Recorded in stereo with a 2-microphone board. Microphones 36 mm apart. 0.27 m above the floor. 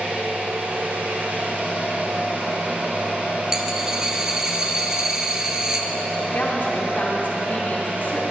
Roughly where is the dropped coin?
Right.